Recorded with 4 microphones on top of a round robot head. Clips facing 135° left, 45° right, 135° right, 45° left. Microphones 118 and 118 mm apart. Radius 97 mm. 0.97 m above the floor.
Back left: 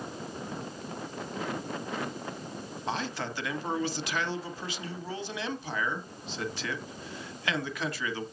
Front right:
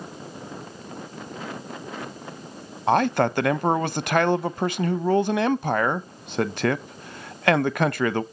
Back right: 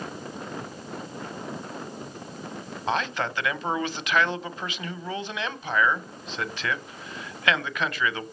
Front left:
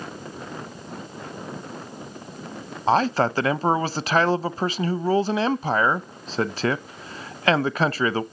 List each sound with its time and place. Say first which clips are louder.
2.9 s a man speaking: front right 14 dB, front left 8 dB; 10° right, 0.6 m